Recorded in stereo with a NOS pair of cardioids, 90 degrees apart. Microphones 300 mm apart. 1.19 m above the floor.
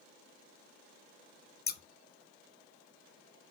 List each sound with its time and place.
1.7 s scissors: 35° left, 0.8 m